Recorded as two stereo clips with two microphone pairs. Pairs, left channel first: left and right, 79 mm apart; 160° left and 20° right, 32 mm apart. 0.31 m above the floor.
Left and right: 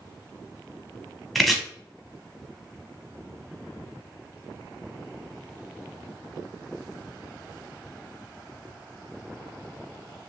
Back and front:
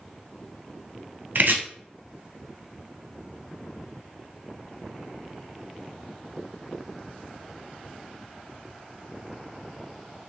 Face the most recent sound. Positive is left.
turn(degrees=0)